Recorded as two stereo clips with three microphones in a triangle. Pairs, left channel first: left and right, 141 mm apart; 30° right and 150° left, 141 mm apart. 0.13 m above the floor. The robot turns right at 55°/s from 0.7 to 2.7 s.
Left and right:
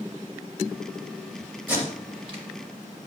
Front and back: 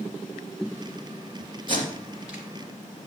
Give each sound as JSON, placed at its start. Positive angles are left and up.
{"t": 1.7, "sound": "tape being pulled", "azimuth_deg": -165, "distance_m": 2.5}